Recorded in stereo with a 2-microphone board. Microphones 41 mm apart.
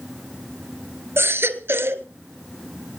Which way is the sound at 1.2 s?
70° right (ahead or behind).